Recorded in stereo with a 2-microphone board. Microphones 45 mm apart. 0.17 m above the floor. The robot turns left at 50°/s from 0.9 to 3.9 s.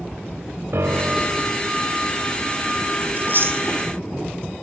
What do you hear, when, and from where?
0.7 s a piano: 70° right, 1.3 m; by 1.5 s 100° right, 1.3 m
3.2 s chewing: 40° right (ahead or behind), 6 m; by 3.6 s 65° right (ahead or behind), 6 m